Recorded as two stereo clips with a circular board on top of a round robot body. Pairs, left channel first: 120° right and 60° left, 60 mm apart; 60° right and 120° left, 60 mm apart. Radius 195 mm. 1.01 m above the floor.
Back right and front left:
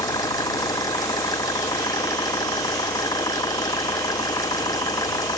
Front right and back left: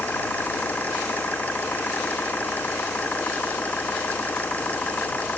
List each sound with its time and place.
0.0 s an engine running: 125° right